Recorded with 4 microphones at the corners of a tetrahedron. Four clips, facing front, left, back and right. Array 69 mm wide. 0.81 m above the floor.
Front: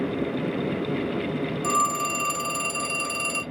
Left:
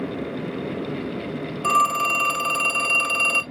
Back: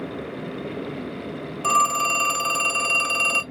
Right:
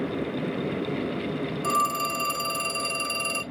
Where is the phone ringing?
130° left, 0.8 m.